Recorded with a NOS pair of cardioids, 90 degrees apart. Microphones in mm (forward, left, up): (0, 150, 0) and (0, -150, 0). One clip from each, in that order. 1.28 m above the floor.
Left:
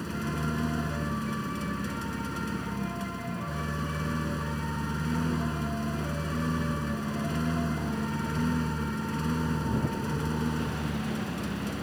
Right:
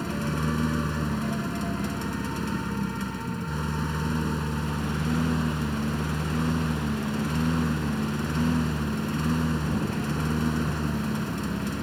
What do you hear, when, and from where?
0.0 s a lawn mower: 30° right